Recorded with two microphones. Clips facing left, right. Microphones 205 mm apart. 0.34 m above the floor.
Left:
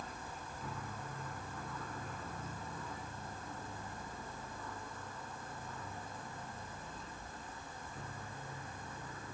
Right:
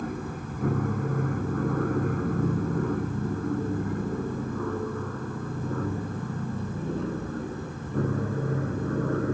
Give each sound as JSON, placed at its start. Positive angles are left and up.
{"t": 0.0, "sound": "an aircraft", "side_deg": -65}